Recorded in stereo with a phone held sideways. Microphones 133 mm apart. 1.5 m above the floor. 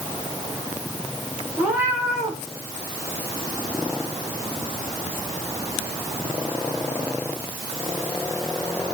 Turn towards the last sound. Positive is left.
turn(degrees=-10)  # may be behind; listen again after turning